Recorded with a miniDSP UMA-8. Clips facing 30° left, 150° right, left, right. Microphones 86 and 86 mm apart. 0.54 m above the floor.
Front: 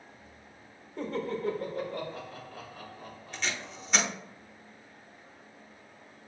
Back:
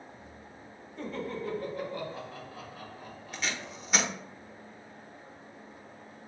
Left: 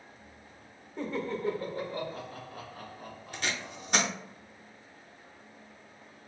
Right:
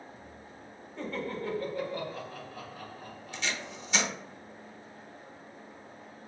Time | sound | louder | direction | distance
1.0 | laughter | front 3 dB, left 2 dB | 15° left | 1.2 m
3.3 | tape being pulled | even, left 1 dB | 125° left | 0.8 m